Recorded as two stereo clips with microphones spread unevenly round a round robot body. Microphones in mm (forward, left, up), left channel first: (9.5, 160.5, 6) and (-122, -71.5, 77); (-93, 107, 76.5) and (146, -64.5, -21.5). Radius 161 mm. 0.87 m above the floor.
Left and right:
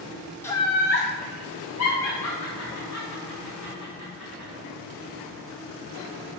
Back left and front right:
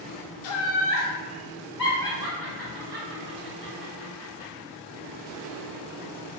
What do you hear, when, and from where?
0.4 s laughter: 125° left, 0.6 m; by 4.5 s 30° left, 3 m